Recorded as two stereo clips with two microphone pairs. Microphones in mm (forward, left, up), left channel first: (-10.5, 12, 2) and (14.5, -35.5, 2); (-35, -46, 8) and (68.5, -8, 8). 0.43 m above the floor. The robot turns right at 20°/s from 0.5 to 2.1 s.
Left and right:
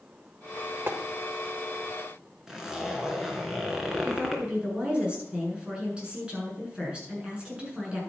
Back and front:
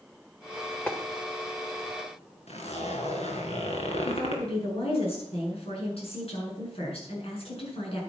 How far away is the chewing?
I don't hear chewing.